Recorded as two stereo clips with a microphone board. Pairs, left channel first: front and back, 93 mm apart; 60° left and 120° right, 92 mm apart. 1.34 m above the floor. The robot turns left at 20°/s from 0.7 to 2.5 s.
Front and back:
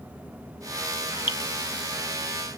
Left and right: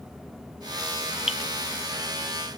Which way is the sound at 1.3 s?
35° right.